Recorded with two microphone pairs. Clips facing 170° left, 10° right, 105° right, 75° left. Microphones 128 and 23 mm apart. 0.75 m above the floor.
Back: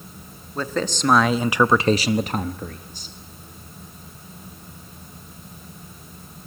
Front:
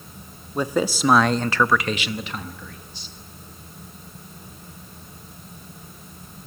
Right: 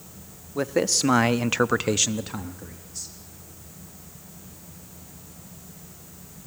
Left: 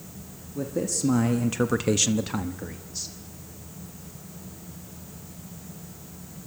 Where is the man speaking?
85° right, 1.1 m; by 3.1 s 130° left, 1.2 m.